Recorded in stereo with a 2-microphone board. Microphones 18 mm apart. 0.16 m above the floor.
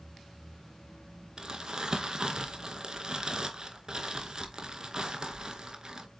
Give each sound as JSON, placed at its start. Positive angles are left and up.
{"t": 1.4, "sound": "crumpling", "side_deg": -40, "distance_m": 0.6}